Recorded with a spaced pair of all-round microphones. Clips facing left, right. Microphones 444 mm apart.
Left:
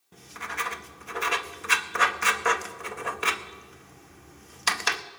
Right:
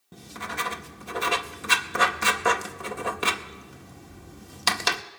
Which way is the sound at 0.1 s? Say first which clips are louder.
Right 4 dB; 55° right (ahead or behind).